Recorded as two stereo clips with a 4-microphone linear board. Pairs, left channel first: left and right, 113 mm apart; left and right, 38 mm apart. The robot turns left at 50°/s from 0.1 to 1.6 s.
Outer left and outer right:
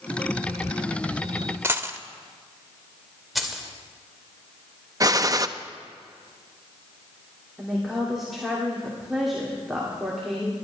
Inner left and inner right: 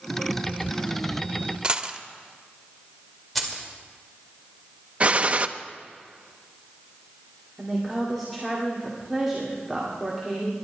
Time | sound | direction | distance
1.6 | a dropped coin | 20° right (ahead or behind) | 0.9 m
3.4 | keys jangling | centre (ahead or behind) | 2.5 m
5.0 | a gunshot | 30° right (ahead or behind) | 0.6 m
7.6 | a woman speaking | centre (ahead or behind) | 2.5 m